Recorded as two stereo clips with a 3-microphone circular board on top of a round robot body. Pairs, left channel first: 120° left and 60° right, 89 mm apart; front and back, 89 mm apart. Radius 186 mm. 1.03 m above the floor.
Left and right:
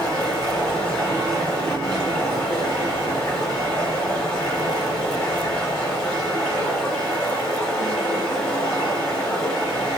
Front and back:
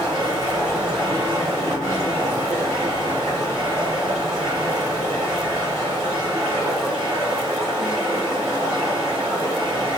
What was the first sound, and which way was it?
Running water, 125° left.